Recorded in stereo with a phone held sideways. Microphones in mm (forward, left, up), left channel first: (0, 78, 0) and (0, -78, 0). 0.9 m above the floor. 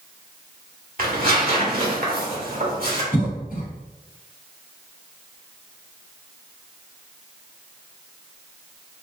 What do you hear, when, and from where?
1.0 s tearing paper: 65° right (ahead or behind), 1.2 m
3.1 s a cough: 60° left (ahead or behind), 1.3 m